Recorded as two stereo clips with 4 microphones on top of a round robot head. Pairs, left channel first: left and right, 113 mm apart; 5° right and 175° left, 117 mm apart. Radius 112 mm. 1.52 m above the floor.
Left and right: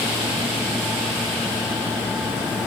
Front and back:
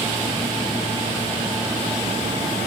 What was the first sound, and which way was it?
Only background noise.